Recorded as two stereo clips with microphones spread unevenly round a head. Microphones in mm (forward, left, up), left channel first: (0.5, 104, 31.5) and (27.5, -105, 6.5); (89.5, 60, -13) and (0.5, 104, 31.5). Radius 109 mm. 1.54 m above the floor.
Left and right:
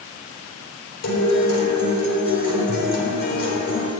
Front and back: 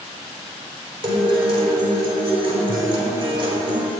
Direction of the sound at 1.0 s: 115° left.